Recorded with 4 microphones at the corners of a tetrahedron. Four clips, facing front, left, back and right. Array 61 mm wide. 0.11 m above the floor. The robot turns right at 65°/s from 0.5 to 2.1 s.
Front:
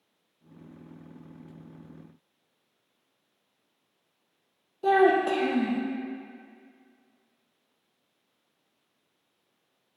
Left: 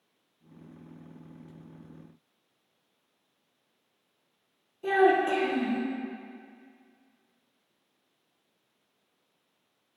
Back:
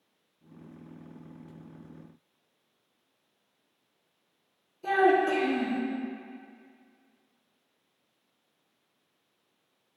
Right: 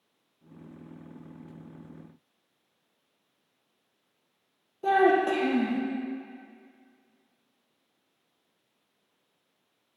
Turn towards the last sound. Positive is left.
turn(degrees=-25)